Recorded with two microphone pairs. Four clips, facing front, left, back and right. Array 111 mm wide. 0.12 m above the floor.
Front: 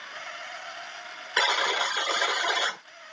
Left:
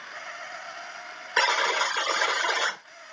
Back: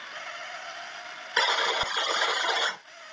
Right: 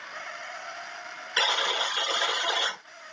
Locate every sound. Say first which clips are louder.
1.4 s a buzzer: left 4 dB, even; 80° left, 0.8 m